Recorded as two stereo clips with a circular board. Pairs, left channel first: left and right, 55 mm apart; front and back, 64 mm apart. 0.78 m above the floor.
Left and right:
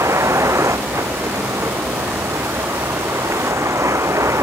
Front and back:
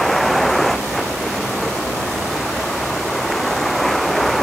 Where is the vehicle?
90° right.